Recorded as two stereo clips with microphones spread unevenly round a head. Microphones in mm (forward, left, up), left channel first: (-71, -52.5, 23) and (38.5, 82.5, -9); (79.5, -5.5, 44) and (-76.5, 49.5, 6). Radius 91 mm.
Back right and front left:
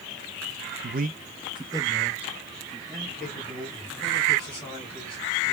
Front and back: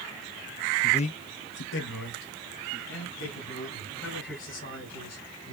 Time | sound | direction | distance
0.8 | a man speaking | 50° left | 0.7 m